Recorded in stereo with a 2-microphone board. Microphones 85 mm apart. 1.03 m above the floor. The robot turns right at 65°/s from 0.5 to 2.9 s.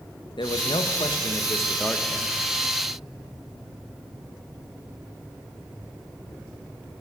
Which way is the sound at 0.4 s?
70° left.